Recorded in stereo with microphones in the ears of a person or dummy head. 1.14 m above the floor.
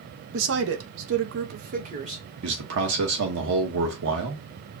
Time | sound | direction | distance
0.3 | a woman speaking | 70° right (ahead or behind) | 0.9 m
2.4 | a man speaking | 75° right (ahead or behind) | 1.3 m